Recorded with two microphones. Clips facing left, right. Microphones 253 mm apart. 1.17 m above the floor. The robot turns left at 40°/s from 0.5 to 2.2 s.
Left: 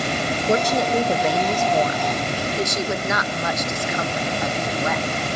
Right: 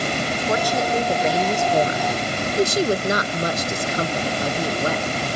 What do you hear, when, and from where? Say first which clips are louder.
0.5 s a woman speaking: left 3 dB; 30° left, 1.2 m; by 5.0 s 35° right, 1.2 m